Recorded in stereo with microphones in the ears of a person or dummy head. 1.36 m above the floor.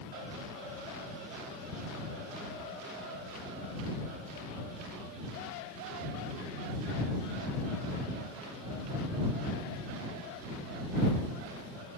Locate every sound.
Only background noise.